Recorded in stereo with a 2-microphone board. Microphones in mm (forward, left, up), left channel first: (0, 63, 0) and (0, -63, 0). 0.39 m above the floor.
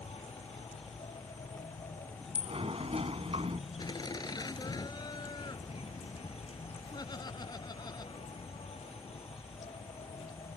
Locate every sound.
0.0 s an insect: 55° left (ahead or behind)
2.4 s a sliding door: 55° right (ahead or behind)
3.8 s laughter: 35° left (ahead or behind)